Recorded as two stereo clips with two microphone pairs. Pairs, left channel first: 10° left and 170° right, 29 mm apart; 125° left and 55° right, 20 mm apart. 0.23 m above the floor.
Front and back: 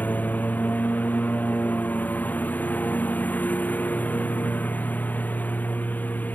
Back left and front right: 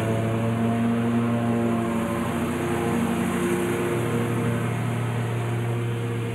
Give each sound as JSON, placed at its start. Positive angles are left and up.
{"t": 0.0, "sound": "a lawn mower", "azimuth_deg": 30}